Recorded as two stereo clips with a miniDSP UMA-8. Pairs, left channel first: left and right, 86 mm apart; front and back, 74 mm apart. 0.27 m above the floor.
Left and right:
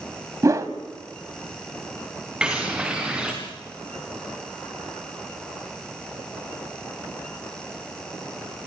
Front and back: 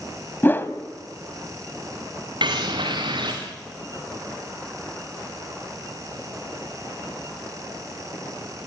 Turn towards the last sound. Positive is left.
turn(degrees=-170)